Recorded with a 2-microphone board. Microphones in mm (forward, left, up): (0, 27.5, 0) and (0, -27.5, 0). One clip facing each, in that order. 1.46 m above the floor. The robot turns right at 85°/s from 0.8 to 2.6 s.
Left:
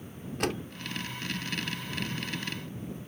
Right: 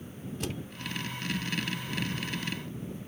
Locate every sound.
0.4 s a door slam: 70° left (ahead or behind)